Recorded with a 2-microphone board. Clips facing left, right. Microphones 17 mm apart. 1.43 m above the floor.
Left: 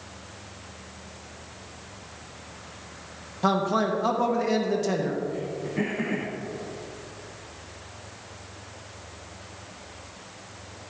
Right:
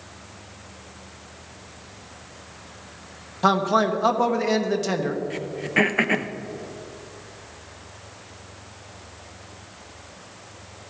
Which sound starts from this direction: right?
Throat clearing, at 5.3 s.